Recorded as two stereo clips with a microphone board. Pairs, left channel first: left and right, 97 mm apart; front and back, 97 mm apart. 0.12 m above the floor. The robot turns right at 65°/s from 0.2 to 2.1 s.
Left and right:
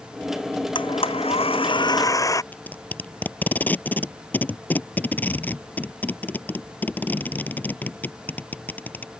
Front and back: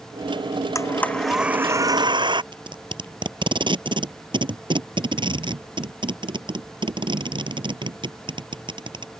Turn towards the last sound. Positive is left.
turn(degrees=160)